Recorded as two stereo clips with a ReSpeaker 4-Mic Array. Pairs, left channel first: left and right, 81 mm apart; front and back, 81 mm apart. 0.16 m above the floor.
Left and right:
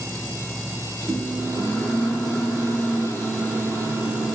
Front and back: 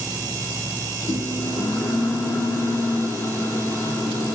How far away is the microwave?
About 2.5 m.